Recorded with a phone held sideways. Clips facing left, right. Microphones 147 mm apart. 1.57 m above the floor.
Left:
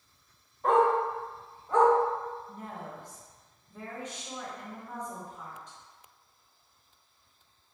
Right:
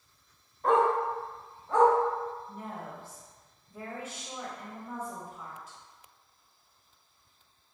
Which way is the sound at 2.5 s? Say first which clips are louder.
Right 1 dB; 5° right (ahead or behind).